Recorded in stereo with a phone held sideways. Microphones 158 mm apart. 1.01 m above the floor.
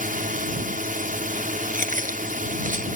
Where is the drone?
65° right (ahead or behind).